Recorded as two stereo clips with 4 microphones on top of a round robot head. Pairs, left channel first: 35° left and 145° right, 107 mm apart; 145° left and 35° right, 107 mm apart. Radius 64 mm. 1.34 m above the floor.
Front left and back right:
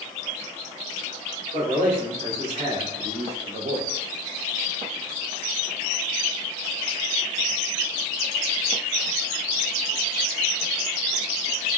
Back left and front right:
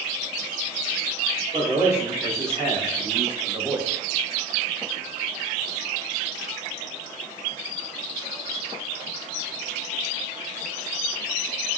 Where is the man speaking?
100° right, 1.7 m; by 3.9 s 125° right, 0.6 m.